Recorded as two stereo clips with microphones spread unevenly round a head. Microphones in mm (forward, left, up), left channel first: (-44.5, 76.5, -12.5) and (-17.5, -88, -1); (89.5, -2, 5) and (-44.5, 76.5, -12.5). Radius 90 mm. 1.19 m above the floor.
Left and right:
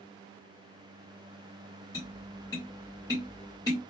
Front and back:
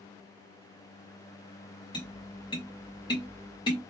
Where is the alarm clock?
No alarm clock in this recording.